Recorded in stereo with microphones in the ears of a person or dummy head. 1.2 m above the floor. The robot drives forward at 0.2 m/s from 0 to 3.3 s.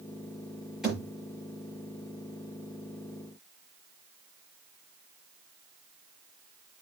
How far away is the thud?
About 6.5 m.